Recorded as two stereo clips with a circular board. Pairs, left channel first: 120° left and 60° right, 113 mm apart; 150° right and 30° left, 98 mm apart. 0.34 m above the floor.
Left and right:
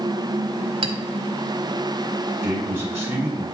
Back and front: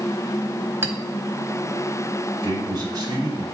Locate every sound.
0.8 s a clink: 35° right, 1.1 m
2.4 s a man speaking: 15° left, 1.7 m